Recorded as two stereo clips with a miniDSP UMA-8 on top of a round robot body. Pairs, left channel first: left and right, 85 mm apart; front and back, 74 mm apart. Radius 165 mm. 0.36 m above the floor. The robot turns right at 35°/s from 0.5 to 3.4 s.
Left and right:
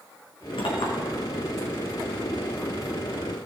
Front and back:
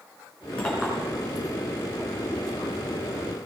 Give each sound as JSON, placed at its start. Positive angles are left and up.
{"t": 0.6, "sound": "a clink", "azimuth_deg": 75, "distance_m": 3.5}